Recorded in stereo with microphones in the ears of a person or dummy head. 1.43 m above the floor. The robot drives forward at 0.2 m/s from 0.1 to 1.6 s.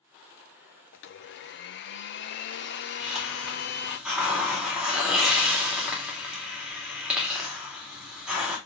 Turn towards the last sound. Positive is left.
turn(degrees=-5)  # may be behind; listen again after turning